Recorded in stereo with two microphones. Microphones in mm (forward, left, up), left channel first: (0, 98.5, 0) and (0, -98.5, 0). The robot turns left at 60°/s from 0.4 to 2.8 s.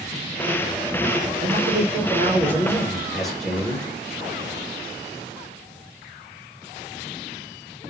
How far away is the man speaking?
About 1.0 m.